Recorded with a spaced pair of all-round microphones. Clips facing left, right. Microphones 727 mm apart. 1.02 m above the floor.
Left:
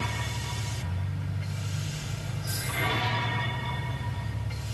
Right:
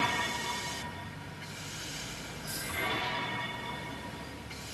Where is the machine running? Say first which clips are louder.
Right 1 dB; 70° left (ahead or behind).